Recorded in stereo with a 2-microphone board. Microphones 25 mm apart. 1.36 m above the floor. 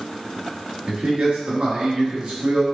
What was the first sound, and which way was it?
A man speaking, 55° right (ahead or behind).